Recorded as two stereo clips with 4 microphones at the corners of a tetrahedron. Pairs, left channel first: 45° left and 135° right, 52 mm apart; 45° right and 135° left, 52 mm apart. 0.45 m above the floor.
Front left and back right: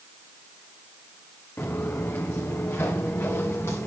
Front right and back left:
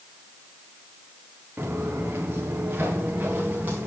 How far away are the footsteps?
About 3 m.